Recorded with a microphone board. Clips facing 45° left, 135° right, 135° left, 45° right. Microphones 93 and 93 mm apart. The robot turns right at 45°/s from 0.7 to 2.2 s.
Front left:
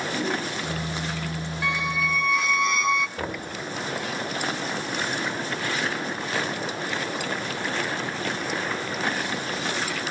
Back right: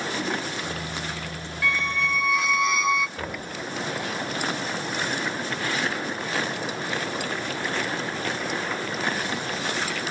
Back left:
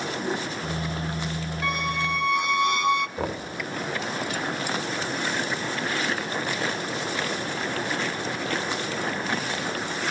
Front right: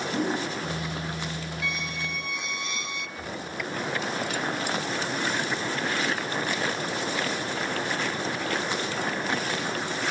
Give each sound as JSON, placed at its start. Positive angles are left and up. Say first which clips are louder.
{"t": 0.1, "sound": "a whoosh", "louder": "front left 1 dB, front right 5 dB", "azimuth_deg": -25, "distance_m": 6.0}
{"t": 1.6, "sound": "a squeak", "louder": "back right 1 dB, back left 10 dB", "azimuth_deg": 110, "distance_m": 0.7}
{"t": 3.2, "sound": "knocking", "louder": "front left 2 dB, back left 6 dB", "azimuth_deg": 120, "distance_m": 3.0}